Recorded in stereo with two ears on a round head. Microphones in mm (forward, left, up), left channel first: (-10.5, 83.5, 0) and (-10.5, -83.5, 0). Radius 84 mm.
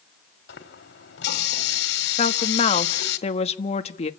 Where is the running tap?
65° left (ahead or behind), 2 m.